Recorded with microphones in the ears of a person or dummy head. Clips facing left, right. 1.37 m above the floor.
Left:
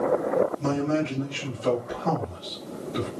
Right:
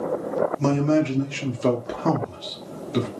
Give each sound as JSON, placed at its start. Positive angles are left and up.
{"t": 0.6, "sound": "a man speaking", "side_deg": -70, "distance_m": 0.8}